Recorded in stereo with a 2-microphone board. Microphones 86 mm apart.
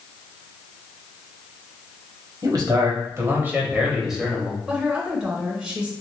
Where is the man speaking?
50° right (ahead or behind), 1.3 m; by 4.6 s 10° left (ahead or behind), 1.2 m.